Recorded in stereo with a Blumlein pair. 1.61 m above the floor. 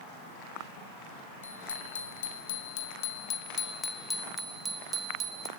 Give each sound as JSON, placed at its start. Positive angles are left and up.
{"t": 1.4, "sound": "a bicycle bell", "azimuth_deg": 70, "distance_m": 4.0}